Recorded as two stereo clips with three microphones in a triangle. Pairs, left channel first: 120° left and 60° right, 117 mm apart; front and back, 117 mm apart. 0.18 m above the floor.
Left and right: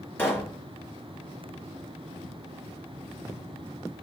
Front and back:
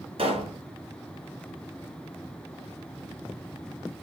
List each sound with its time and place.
0.2 s a pop: 170° right, 1.8 m